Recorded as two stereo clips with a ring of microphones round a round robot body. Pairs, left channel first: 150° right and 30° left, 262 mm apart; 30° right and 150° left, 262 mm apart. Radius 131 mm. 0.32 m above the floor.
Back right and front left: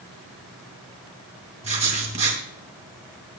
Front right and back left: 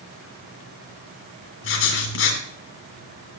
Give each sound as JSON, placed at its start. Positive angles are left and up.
{"t": 1.6, "sound": "writing", "azimuth_deg": -25, "distance_m": 1.7}